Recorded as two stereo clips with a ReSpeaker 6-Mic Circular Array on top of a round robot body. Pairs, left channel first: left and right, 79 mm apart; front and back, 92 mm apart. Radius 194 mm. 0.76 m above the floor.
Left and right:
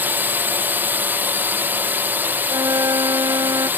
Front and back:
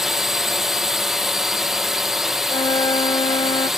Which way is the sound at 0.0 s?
100° right.